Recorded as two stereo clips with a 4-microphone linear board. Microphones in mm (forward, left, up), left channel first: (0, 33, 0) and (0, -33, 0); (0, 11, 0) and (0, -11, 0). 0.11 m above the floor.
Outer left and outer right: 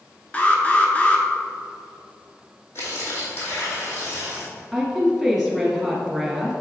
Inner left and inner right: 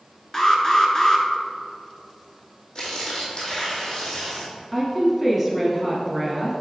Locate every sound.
0.3 s an alarm: 25° left (ahead or behind), 0.8 m
2.8 s tearing paper: 45° left (ahead or behind), 2 m
4.7 s a woman speaking: centre (ahead or behind), 1.5 m